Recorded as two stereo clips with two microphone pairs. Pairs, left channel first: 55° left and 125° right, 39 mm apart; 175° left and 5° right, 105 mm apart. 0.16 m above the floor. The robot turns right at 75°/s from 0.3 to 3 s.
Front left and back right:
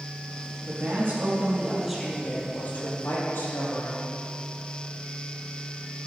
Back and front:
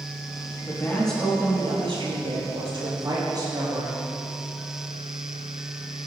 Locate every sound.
0.7 s a woman speaking: 135° right, 4.5 m; by 4.1 s 40° left, 4.5 m